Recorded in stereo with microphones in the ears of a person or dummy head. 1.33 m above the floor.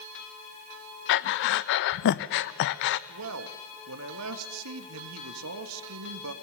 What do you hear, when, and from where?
1.1 s breathing: 55° left (ahead or behind), 0.7 m
3.1 s a man speaking: 80° right, 1.9 m